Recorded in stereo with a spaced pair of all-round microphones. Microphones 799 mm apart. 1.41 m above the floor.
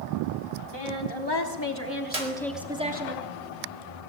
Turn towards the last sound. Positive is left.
turn(degrees=-45)  # may be behind; listen again after turning